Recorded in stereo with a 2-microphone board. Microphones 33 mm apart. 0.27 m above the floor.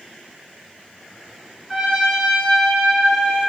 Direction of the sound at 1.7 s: 5° left (ahead or behind).